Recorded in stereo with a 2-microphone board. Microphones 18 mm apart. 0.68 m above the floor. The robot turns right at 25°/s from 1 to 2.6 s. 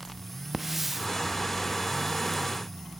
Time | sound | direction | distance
0.5 | a hiss | 10° right (ahead or behind) | 0.5 m